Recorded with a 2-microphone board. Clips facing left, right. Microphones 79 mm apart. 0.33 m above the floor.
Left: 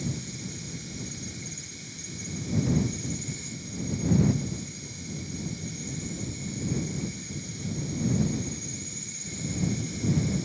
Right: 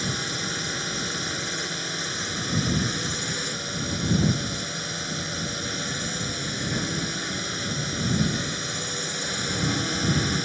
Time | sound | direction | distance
0.0 | a drone | 75° right (ahead or behind) | ?